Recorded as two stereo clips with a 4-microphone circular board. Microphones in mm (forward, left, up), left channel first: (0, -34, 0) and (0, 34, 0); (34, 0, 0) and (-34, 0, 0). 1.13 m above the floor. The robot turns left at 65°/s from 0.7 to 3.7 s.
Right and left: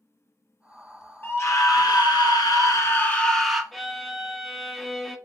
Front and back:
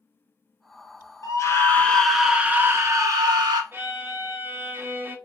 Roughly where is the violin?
Behind.